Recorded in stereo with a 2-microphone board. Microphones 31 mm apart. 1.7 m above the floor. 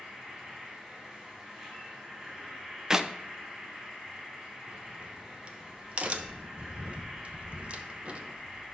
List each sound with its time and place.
0.0 s an insect: 15° right (ahead or behind), 4.5 m
2.9 s a clap: 15° right (ahead or behind), 0.6 m
4.7 s a crack: 40° right (ahead or behind), 1.0 m